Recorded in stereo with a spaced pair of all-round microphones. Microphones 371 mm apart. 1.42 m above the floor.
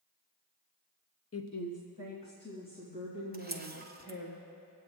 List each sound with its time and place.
1.3 s a woman speaking: 40° left (ahead or behind), 0.6 m; by 4.3 s 65° left (ahead or behind), 4.5 m
3.3 s a camera shutter: 25° right (ahead or behind), 0.7 m